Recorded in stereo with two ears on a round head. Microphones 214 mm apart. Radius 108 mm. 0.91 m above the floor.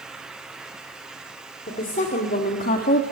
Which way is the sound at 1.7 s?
35° left (ahead or behind).